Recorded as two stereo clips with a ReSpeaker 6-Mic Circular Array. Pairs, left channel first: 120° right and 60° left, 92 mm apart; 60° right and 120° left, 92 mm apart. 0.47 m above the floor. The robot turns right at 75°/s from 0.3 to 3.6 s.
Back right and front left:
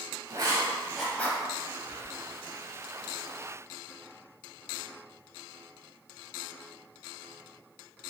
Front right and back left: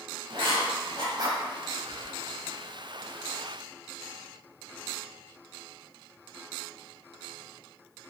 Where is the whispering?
80° left, 1.1 m; by 2.4 s 120° left, 1.1 m.